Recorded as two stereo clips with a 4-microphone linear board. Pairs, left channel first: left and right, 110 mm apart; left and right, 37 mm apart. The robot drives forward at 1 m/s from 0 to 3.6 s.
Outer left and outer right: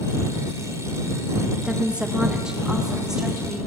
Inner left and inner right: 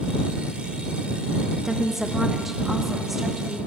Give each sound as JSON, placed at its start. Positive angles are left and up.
{"t": 1.6, "sound": "a woman speaking", "side_deg": -10, "distance_m": 1.4}